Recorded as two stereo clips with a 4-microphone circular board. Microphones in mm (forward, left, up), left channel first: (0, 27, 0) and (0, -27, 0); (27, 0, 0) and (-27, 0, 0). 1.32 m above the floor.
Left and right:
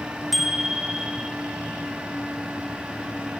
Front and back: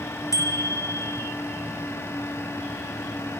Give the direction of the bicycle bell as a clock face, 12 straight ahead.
12 o'clock.